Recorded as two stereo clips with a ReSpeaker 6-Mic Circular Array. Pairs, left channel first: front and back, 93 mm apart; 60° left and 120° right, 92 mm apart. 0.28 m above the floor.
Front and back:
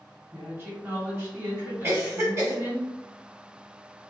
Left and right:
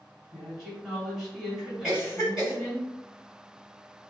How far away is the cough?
About 1.8 m.